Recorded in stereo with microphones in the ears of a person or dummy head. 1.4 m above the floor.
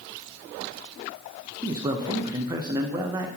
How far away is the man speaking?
About 1.0 m.